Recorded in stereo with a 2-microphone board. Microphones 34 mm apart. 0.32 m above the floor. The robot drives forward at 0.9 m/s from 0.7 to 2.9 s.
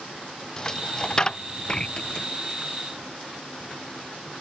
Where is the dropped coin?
25° left (ahead or behind); by 2.2 s 35° left (ahead or behind).